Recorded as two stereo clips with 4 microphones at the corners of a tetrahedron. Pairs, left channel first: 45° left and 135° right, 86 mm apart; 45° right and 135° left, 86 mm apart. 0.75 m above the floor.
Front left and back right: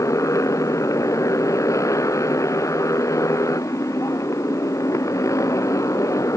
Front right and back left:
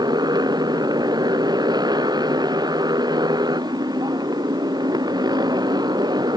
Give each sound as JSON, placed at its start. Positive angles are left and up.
{"t": 0.0, "sound": "a motorcycle", "azimuth_deg": 95}